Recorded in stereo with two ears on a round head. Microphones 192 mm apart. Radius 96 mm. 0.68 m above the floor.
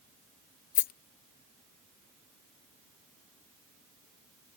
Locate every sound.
0.8 s a rattle: 40° left (ahead or behind)